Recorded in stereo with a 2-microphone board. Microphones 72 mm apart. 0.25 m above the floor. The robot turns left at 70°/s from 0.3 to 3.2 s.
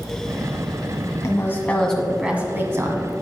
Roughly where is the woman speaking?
Ahead left.